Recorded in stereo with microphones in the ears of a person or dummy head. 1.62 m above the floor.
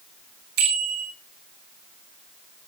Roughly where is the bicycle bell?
Right.